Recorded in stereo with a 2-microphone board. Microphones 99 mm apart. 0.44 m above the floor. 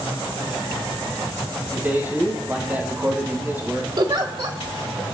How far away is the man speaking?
About 3 m.